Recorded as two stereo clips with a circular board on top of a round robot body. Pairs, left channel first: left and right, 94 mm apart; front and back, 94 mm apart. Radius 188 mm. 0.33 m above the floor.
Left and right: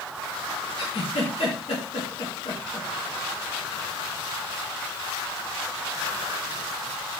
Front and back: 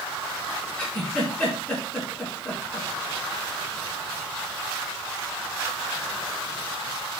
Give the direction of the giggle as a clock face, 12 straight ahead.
10 o'clock.